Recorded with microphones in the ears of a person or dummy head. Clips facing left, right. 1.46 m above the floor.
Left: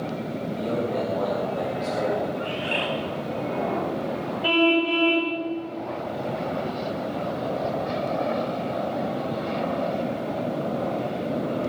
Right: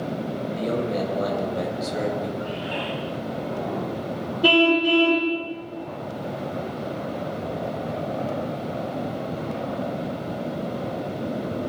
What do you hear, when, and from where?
0.6 s a man speaking: 30° right (ahead or behind), 8 m
2.4 s a bird: 35° left (ahead or behind), 2 m
4.4 s a car horn: 70° right (ahead or behind), 3.5 m